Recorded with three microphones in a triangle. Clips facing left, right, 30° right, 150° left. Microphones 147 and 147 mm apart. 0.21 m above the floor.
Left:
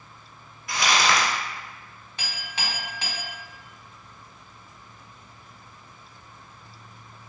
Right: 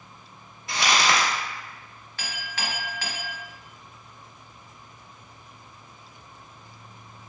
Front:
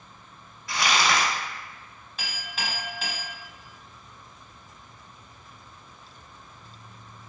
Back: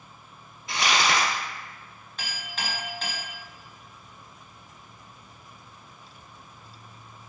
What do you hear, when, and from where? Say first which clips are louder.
0.7 s crumpling: even, even; 145° right, 1.3 m
2.2 s a clink: right 1 dB, even; 50° left, 0.9 m